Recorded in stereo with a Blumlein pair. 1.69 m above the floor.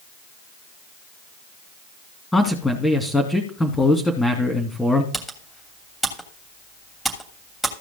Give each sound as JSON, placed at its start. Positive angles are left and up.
{"t": 2.3, "sound": "a man speaking", "azimuth_deg": 5, "distance_m": 2.5}
{"t": 5.1, "sound": "typing on a keyboard", "azimuth_deg": 0, "distance_m": 3.0}